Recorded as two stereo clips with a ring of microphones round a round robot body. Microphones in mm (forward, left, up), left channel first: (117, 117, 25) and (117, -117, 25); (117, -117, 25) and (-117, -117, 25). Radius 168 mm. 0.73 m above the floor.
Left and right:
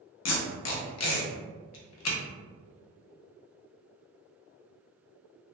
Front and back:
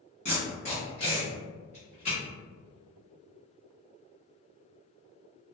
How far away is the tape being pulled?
About 0.6 m.